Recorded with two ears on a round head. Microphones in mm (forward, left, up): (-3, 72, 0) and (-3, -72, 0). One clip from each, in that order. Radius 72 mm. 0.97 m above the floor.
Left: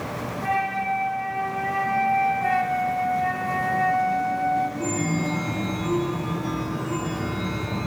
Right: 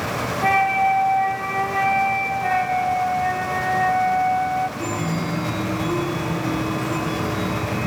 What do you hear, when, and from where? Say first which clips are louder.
0.4 s a flute: right 7 dB; 55° right (ahead or behind), 4.5 m
2.4 s a flute: right 2 dB; centre (ahead or behind), 0.8 m
4.8 s a chime: right 1 dB; centre (ahead or behind), 3 m